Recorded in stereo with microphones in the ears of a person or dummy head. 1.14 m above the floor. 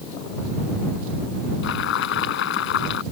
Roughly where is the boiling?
Left.